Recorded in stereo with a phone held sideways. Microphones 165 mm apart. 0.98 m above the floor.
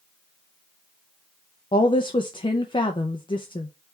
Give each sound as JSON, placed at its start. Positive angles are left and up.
{"t": 1.7, "sound": "a woman speaking", "side_deg": 30, "distance_m": 0.5}